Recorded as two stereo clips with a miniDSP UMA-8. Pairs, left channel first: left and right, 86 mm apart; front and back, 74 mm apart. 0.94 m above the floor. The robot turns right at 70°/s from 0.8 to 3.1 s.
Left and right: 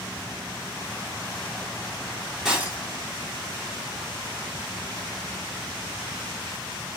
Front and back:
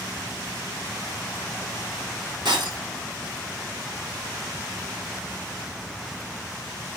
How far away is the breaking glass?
About 4.5 m.